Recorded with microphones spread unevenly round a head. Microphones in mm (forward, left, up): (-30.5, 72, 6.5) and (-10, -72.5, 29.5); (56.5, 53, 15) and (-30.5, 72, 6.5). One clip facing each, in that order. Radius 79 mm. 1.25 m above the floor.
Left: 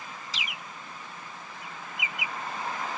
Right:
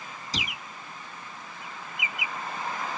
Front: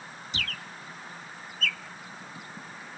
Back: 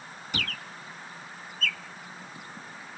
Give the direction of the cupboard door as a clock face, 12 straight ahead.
4 o'clock.